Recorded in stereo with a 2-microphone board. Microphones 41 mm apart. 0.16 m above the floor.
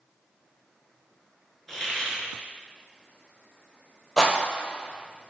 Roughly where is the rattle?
Centre.